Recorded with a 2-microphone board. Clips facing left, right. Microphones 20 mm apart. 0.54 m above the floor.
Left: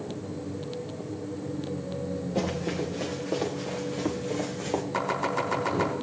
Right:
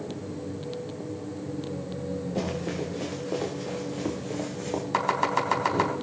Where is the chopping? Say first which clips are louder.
Right 5 dB; 40° right (ahead or behind), 3.5 m.